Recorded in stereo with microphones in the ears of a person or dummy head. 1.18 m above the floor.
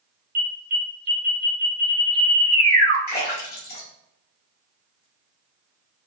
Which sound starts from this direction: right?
An alarm, at 0.3 s.